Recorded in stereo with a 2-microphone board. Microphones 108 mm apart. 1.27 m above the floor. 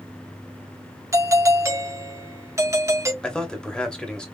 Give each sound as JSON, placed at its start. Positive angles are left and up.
{"t": 1.1, "sound": "a doorbell", "side_deg": -25, "distance_m": 0.9}
{"t": 3.2, "sound": "a man speaking", "side_deg": 10, "distance_m": 1.2}